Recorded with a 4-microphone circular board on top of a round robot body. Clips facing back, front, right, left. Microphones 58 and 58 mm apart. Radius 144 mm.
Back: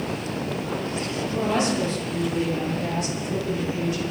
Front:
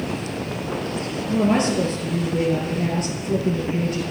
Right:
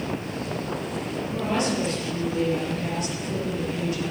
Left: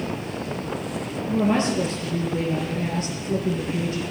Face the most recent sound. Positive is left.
turn(degrees=35)